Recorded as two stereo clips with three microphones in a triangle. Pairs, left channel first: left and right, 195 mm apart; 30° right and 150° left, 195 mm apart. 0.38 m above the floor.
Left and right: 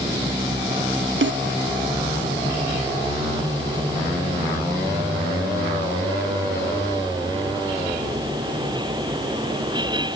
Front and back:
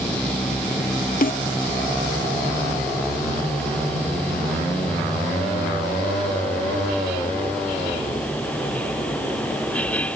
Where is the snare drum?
75° right, 0.5 m.